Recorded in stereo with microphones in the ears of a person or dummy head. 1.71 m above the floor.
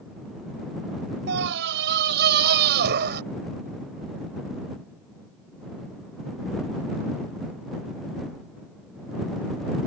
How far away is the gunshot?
No gunshot in this recording.